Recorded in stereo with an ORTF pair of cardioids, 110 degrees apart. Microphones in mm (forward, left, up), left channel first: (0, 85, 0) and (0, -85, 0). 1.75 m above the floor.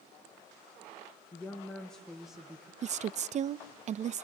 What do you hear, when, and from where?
1.3 s a woman speaking: 10° left, 2 m; by 2.7 s 10° right, 2.0 m
2.8 s a woman speaking: 45° right, 0.6 m